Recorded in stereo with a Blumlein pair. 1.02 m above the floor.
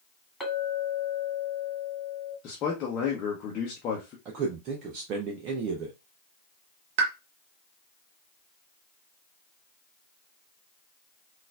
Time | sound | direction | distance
0.4 | a clink | 5° left | 2.5 m
2.4 | a man speaking | 35° left | 0.9 m
4.2 | a man speaking | 35° right | 0.6 m
7.0 | a pop | 50° right | 0.6 m